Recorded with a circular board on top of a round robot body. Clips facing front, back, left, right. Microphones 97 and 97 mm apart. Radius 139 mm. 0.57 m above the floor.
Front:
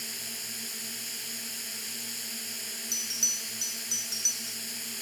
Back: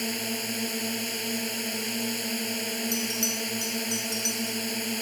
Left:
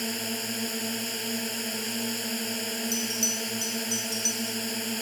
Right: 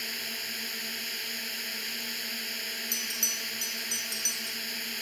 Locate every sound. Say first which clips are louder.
0.0 s a drone: back 14 dB, left 9 dB; 145° left
2.9 s a bell: back 14 dB, left 9 dB; 130° right